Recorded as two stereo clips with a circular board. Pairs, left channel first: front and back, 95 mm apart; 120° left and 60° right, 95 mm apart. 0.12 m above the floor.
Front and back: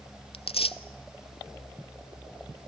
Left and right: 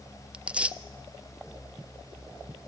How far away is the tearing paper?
About 0.5 m.